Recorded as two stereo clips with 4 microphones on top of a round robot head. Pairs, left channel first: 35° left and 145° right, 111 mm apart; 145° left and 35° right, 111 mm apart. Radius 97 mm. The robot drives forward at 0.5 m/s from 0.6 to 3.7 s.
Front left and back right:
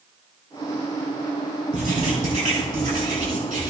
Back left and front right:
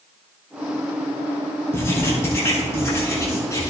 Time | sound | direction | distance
1.7 | writing | 145° right | 8.5 m